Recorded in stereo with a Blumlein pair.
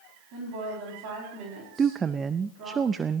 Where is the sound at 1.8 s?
20° right, 0.5 m.